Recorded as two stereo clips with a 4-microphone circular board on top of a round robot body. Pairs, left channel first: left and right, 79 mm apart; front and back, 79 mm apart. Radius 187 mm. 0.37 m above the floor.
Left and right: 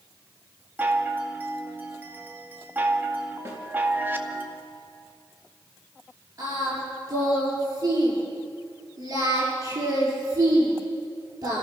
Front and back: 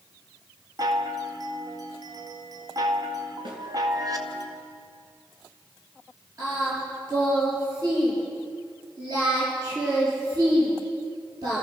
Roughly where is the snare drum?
Behind right.